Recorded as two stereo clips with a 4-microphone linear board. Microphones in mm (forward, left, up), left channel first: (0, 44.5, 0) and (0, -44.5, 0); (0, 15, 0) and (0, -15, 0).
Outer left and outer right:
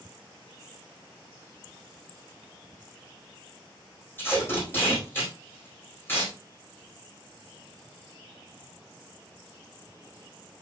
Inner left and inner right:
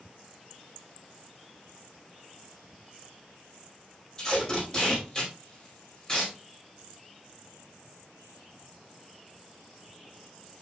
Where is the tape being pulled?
25° left (ahead or behind), 4.5 m.